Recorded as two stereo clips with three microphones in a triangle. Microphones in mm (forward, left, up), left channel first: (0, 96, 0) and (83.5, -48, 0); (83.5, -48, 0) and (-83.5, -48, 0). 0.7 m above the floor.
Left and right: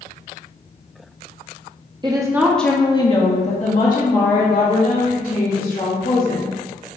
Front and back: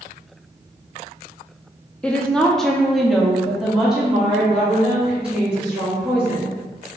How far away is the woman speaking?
About 0.6 m.